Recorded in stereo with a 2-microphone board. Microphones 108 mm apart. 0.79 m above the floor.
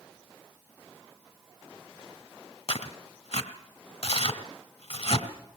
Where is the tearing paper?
65° left (ahead or behind), 2.0 m.